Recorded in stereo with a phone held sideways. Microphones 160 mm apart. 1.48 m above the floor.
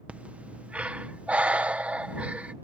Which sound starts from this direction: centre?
Breathing, at 0.1 s.